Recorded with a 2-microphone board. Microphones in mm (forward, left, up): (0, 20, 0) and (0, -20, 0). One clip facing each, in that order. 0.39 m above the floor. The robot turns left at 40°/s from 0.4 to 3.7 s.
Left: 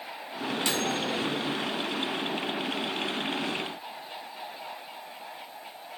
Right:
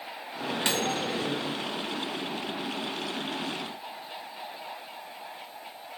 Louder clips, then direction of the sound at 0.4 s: Even; 90° right.